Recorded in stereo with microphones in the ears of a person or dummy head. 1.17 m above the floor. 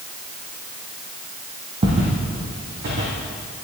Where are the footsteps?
35° right (ahead or behind), 1.8 m; by 3.1 s 60° right (ahead or behind), 2.5 m.